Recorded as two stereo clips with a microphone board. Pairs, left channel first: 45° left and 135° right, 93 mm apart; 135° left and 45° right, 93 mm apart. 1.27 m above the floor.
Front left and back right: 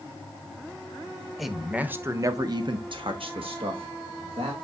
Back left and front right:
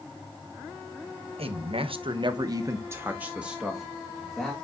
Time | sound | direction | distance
1.4 | a man speaking | 45° right | 1.0 m